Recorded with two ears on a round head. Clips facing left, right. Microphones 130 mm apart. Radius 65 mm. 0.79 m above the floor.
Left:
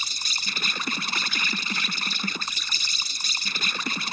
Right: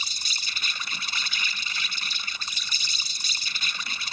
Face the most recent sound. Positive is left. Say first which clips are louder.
# left 3 dB
turn(degrees=45)  # may be behind; listen again after turning